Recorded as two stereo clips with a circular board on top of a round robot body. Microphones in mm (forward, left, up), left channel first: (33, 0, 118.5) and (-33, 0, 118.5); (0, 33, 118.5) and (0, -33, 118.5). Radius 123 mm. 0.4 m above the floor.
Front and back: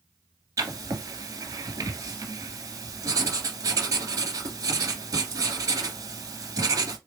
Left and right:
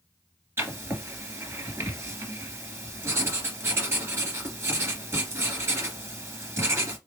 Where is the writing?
145° right, 2 m.